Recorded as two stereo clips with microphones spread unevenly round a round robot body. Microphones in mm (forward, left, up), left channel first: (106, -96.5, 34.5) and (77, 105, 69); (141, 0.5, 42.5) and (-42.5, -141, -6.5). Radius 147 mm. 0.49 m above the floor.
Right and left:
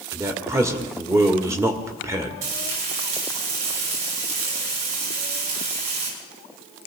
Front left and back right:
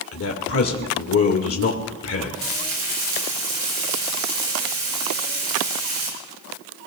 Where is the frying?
160° left, 5.5 m.